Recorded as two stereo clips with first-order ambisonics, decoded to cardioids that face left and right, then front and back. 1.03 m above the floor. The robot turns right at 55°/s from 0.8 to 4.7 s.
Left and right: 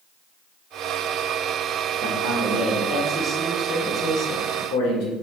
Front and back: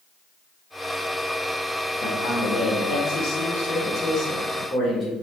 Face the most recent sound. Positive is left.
turn(degrees=75)